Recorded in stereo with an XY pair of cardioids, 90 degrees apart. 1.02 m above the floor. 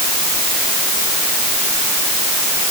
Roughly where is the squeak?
No squeak in this recording.